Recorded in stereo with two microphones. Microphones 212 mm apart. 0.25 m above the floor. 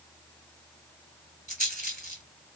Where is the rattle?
40° right (ahead or behind), 1.8 m.